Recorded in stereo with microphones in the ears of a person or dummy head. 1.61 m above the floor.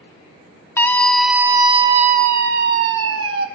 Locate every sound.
0.8 s a scream: 15° left (ahead or behind), 0.8 m; by 3.5 s 80° right, 1.1 m